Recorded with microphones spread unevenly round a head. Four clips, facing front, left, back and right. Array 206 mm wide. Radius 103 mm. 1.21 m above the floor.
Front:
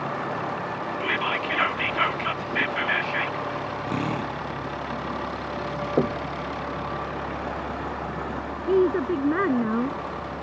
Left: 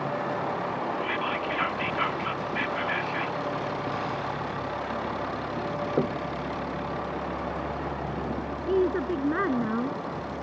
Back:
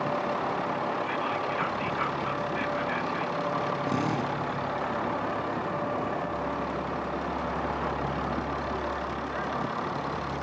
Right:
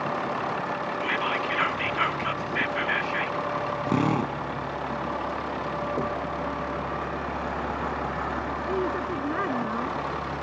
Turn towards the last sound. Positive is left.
turn(degrees=15)